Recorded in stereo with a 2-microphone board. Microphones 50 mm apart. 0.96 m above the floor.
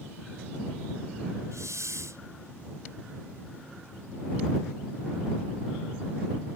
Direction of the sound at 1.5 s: 80° right.